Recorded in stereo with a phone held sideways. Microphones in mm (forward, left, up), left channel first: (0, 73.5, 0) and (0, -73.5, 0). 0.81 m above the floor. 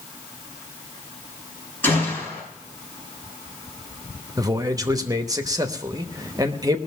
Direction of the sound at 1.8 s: 10° left (ahead or behind).